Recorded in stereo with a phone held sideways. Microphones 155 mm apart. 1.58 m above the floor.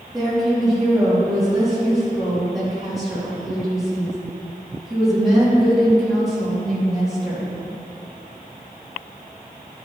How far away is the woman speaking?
About 3.5 m.